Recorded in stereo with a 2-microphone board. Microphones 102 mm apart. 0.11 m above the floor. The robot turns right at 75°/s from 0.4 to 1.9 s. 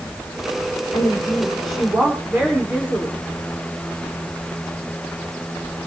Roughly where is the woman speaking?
Behind left.